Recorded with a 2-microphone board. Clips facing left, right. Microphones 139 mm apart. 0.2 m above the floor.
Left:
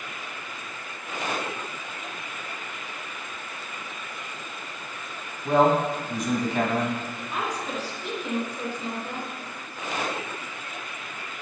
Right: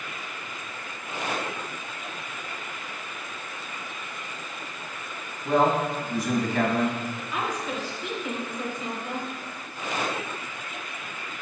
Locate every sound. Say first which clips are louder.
5.5 s a man speaking: left 2 dB; 20° left (ahead or behind), 1.2 m
7.3 s a woman speaking: left 1 dB; 40° left (ahead or behind), 2.5 m